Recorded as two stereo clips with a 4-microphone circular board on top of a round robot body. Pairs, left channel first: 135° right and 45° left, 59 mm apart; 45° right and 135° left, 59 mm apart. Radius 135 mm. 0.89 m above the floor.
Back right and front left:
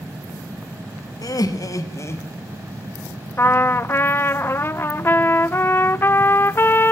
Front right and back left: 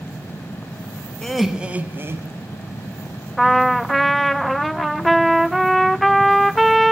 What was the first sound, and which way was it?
Laughter, 125° right.